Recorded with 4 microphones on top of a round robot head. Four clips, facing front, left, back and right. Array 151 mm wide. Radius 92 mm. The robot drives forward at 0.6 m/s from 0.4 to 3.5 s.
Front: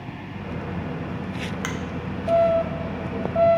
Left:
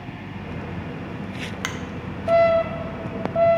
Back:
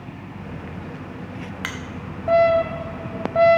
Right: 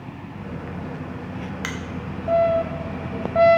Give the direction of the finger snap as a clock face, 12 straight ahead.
9 o'clock.